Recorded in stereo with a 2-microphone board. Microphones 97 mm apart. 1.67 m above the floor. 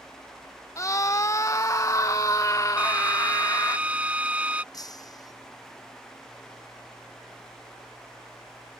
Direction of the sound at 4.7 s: 40° left (ahead or behind).